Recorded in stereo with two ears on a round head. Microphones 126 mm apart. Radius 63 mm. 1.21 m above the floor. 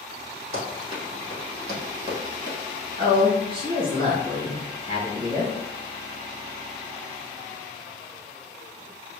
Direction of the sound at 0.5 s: 45° right (ahead or behind).